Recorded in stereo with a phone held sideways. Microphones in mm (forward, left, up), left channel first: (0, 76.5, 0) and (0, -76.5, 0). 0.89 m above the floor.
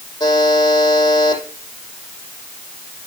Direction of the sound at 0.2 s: 30° left (ahead or behind).